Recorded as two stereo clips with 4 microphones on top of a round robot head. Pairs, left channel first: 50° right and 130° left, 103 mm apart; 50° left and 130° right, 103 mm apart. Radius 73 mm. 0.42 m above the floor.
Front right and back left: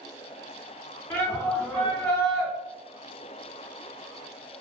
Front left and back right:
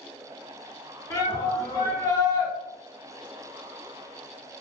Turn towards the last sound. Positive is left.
turn(degrees=30)